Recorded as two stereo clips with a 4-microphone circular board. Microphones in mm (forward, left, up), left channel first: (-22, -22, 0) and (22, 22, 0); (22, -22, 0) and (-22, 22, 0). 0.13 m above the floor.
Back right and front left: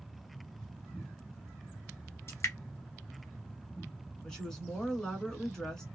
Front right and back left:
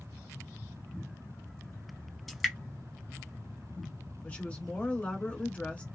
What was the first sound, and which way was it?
Dripping, 135° right.